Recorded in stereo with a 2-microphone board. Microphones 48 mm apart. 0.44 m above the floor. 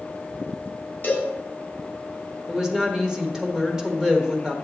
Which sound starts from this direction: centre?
A woman speaking, at 2.5 s.